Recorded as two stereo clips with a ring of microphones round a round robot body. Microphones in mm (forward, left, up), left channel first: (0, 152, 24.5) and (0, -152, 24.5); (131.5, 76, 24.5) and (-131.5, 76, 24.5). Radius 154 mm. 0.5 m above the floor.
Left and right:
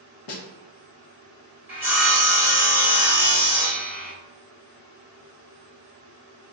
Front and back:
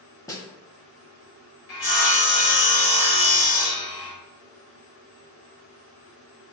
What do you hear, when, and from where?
0.3 s a snare drum: 75° left, 0.7 m
1.7 s sawing: 10° right, 1.2 m